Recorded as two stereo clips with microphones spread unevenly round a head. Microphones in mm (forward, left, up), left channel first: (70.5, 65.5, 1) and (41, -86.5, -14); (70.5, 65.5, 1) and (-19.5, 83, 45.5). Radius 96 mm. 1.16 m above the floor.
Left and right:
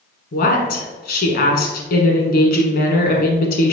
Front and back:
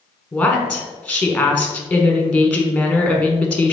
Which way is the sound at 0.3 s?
55° left.